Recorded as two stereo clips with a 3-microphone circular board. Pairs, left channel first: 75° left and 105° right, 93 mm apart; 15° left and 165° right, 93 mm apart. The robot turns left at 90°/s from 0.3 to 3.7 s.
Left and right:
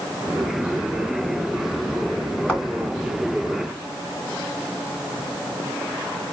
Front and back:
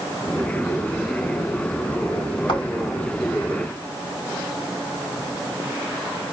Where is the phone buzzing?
No phone buzzing in this recording.